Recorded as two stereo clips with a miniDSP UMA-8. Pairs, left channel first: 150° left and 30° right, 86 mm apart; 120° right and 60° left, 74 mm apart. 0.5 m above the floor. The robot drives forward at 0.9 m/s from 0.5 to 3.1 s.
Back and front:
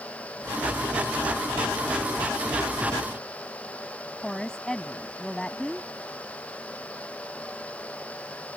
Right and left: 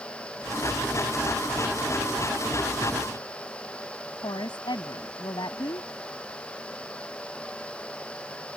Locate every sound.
4.2 s a woman speaking: 130° right